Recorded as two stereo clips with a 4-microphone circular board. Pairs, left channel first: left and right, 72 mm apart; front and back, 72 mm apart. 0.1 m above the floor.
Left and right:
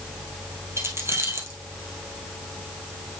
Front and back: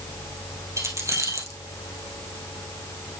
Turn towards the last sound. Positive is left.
turn(degrees=-140)